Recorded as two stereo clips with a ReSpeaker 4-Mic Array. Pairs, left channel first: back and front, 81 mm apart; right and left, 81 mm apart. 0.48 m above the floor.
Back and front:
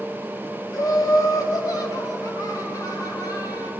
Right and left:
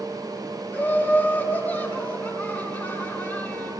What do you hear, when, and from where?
0.7 s laughter: 155° right, 1.7 m